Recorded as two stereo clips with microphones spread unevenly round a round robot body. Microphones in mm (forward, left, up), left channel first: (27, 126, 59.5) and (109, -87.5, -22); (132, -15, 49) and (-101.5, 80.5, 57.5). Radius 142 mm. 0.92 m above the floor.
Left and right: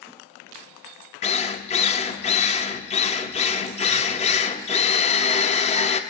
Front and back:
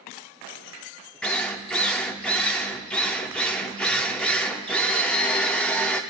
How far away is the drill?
About 0.7 m.